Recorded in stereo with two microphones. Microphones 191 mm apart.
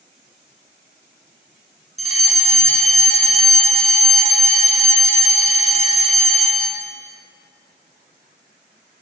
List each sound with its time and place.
2.0 s a fire alarm: 40° left (ahead or behind), 2.5 m